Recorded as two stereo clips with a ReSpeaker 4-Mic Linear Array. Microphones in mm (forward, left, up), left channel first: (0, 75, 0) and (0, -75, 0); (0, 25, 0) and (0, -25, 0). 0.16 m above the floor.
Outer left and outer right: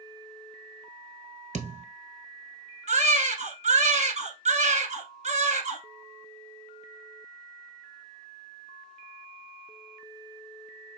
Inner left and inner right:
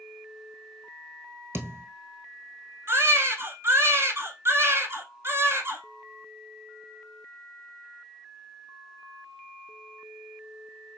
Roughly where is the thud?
Right.